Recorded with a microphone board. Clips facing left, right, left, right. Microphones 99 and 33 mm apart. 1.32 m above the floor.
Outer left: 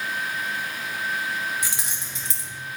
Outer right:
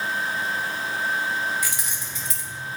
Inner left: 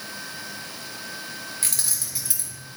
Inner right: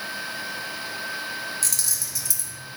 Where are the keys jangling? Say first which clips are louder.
Outer right 2 dB, inner right 1 dB; 25° left (ahead or behind), 1.5 m.